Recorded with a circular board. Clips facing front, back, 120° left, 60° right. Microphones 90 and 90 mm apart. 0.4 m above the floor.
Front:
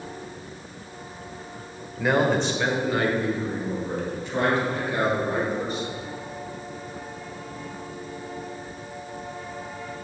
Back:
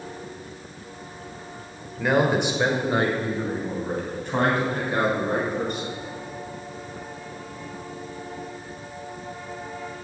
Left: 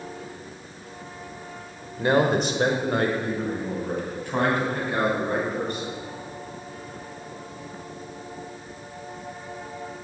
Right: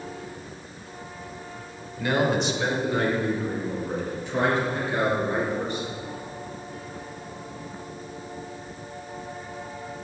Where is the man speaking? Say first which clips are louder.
Back 1 dB, left 3 dB; 85° left, 1.2 m; by 5.9 s 155° left, 4 m.